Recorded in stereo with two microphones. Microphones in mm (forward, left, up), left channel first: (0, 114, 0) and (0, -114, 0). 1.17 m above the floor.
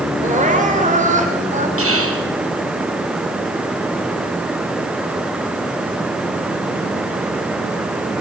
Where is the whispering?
75° right (ahead or behind), 4.5 m.